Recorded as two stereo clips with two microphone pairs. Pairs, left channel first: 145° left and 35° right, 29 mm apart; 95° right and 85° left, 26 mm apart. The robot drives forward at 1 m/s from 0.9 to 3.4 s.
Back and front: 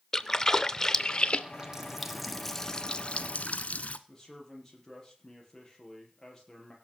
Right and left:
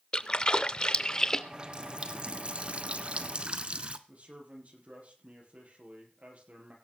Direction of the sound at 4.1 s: 70° left.